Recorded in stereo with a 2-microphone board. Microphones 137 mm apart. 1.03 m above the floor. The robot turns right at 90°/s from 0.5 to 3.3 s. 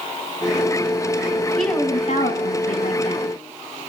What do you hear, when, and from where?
1.6 s a woman speaking: straight ahead, 7 m; by 3.3 s 160° left, 7 m